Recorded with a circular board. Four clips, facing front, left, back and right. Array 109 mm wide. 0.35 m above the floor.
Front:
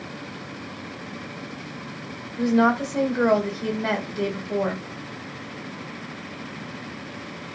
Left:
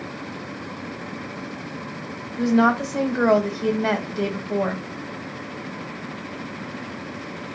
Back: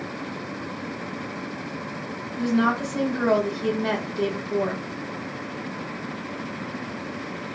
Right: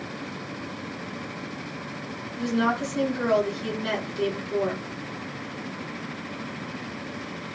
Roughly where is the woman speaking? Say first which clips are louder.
Left 6 dB, front 3 dB; left.